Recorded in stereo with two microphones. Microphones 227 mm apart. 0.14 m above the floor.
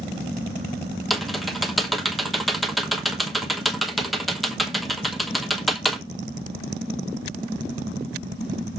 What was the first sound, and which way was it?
Typing on a keyboard, centre (ahead or behind).